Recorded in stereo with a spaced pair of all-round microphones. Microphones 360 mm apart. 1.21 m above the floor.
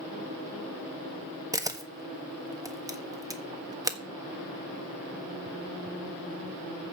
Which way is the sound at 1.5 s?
10° right (ahead or behind).